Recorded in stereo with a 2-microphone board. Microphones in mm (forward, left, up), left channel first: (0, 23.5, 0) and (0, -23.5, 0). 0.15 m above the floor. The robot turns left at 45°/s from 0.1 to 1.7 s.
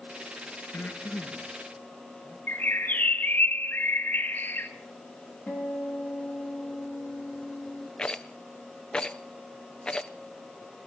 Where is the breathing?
55° left (ahead or behind), 4 m; by 2.4 s 15° left (ahead or behind), 4 m.